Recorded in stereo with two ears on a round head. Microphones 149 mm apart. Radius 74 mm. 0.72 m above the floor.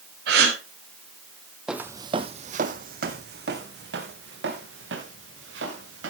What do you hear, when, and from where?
0.3 s a gasp: 75° right (ahead or behind), 4 m
1.7 s footsteps: 5° right (ahead or behind), 1.0 m; by 6.1 s 80° right, 4.5 m